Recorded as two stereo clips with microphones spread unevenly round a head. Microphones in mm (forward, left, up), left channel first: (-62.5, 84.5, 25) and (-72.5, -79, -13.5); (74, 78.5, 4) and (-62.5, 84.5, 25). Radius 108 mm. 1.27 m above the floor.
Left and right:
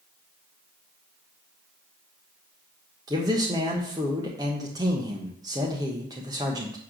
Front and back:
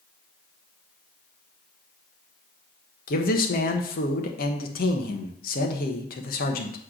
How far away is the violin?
I don't hear a violin.